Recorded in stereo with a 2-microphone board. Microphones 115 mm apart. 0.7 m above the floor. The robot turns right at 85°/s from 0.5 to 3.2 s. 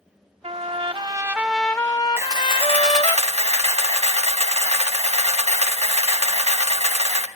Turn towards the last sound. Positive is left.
turn(degrees=-70)